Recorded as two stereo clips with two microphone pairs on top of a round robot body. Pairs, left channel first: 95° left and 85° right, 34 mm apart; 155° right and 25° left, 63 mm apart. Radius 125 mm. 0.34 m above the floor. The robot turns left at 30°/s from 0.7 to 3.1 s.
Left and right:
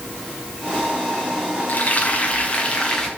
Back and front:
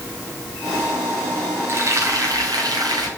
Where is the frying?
70° left, 4 m; by 3.1 s 30° left, 4 m.